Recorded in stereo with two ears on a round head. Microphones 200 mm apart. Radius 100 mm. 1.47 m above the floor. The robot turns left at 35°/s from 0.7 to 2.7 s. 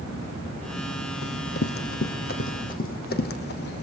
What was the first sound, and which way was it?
Running footsteps, 55° left (ahead or behind).